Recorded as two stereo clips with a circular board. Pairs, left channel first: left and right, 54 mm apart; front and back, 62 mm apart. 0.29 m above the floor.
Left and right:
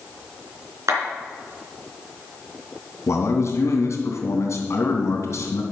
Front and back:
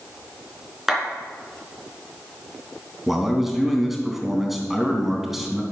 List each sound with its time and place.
0.9 s a clap: 100° right, 3.5 m
3.1 s a man speaking: 95° left, 2.5 m